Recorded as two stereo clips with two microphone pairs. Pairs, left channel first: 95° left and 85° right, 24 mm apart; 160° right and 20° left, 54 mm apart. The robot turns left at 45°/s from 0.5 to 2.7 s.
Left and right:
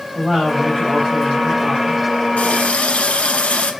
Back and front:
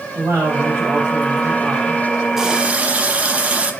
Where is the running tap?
105° left, 0.6 m; by 3.7 s 90° left, 0.6 m.